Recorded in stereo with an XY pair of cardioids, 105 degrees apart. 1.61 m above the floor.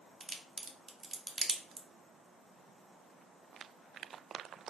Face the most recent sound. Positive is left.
turn(degrees=-30)